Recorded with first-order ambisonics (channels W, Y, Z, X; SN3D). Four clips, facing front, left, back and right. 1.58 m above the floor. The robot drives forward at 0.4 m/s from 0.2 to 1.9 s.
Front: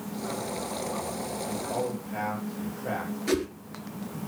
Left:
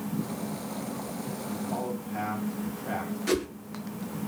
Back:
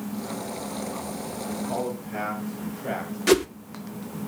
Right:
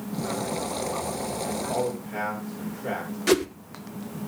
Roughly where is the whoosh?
Behind right.